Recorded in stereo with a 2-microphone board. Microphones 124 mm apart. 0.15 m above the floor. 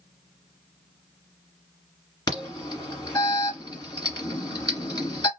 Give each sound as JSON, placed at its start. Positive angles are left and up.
{"t": 2.3, "sound": "an alarm", "side_deg": 30, "distance_m": 1.6}